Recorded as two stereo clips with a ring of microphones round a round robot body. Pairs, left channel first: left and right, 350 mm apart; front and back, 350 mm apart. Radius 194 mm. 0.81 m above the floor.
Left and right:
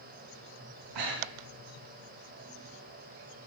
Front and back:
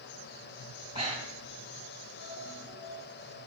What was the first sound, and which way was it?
Breathing, 105° right.